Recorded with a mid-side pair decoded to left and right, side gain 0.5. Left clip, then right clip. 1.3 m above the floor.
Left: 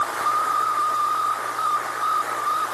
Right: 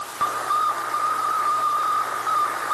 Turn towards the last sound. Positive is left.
No sound to turn to.